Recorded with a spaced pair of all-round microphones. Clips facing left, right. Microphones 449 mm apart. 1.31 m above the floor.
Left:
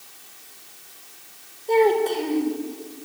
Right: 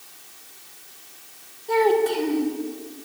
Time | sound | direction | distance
1.7 | a child speaking | 25° right (ahead or behind) | 4.5 m